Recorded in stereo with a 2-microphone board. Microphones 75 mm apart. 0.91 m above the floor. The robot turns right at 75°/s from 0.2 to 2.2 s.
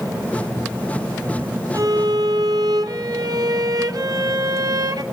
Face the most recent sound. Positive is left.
turn(degrees=-95)